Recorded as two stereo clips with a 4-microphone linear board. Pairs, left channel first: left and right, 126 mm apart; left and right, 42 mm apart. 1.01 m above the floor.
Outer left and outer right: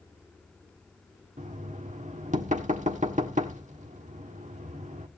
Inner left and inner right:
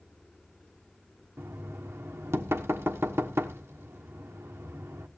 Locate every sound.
1.4 s knocking: 75° right (ahead or behind), 1.3 m